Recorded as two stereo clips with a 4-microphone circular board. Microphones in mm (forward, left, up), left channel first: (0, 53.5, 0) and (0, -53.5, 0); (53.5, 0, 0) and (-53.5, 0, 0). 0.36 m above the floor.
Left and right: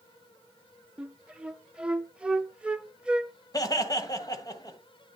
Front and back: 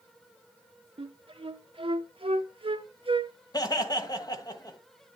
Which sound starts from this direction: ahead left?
Laughter, at 3.5 s.